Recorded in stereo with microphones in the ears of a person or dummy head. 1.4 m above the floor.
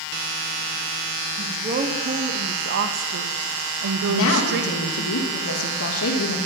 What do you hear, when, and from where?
1.4 s a woman speaking: 30° right (ahead or behind), 2.0 m; by 5.1 s 50° right (ahead or behind), 1.3 m
4.1 s a woman speaking: 80° left, 2.5 m